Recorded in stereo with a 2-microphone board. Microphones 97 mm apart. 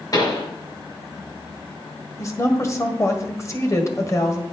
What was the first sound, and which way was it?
A pop, 45° left (ahead or behind).